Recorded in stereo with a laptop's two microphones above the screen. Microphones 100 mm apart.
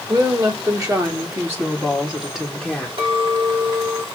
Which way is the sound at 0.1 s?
40° right (ahead or behind).